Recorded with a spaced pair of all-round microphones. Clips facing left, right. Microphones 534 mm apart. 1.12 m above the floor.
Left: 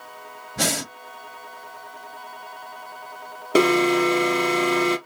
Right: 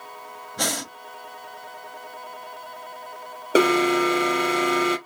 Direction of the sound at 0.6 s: 50° left (ahead or behind).